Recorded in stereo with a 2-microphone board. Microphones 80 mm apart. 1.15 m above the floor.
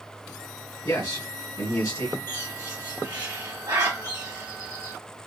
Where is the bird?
55° right (ahead or behind), 1.4 m.